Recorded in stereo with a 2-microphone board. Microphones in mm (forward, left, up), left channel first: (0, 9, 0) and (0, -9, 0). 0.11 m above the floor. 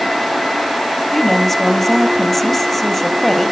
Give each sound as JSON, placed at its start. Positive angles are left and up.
{"t": 1.1, "sound": "a woman speaking", "side_deg": 20, "distance_m": 3.0}